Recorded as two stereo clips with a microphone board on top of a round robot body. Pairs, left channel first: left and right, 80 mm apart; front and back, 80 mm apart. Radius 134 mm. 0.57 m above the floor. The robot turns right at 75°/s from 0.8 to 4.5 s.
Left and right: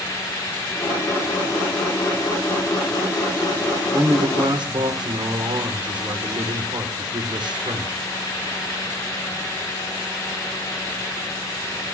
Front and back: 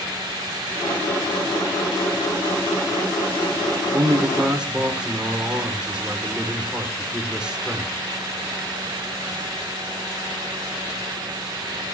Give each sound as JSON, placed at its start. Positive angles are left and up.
{"t": 3.9, "sound": "a man speaking", "azimuth_deg": -145, "distance_m": 2.5}